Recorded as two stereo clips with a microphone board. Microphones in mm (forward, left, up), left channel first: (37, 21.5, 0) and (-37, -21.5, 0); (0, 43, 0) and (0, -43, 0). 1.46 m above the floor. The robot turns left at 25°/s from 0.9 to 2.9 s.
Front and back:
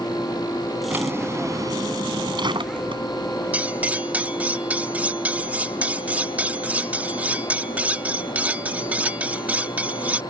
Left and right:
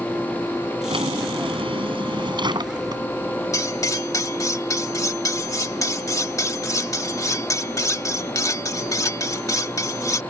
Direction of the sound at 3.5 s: 140° left.